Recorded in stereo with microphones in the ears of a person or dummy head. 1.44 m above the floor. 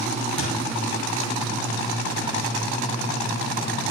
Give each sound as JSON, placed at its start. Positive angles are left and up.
{"t": 0.4, "sound": "a thud", "side_deg": -70, "distance_m": 3.5}